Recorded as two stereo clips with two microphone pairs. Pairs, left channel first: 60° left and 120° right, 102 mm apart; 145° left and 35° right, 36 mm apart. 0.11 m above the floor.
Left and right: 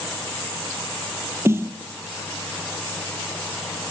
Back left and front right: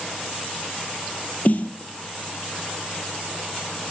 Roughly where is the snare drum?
Behind.